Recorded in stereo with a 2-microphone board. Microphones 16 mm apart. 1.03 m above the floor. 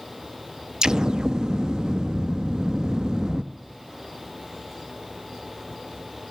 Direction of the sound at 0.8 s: 60° right (ahead or behind).